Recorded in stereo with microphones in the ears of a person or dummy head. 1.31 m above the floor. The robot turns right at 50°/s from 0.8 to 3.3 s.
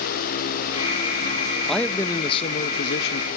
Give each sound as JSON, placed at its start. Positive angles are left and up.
{"t": 1.7, "sound": "a man speaking", "azimuth_deg": 0, "distance_m": 1.1}